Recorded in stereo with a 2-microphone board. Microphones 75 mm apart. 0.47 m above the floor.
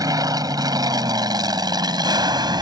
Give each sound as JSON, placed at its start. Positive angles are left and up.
{"t": 0.0, "sound": "an aircraft", "side_deg": -55}